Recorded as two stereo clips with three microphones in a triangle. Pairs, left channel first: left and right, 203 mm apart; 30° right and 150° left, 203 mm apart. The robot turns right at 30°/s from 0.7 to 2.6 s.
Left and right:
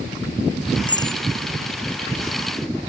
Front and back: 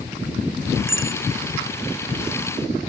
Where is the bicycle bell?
155° left; by 1.2 s 165° left.